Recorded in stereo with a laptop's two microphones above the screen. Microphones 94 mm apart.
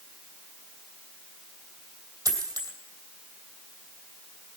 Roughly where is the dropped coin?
Right.